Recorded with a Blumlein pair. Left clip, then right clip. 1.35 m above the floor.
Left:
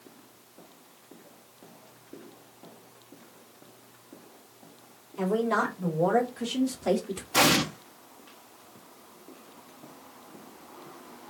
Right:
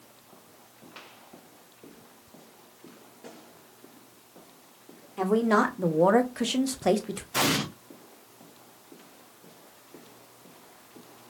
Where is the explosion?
20° left, 0.6 m.